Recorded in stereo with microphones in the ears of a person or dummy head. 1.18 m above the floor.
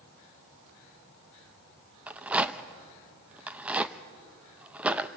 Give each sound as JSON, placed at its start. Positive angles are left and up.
{"t": 2.1, "sound": "a rattle", "side_deg": -5, "distance_m": 0.6}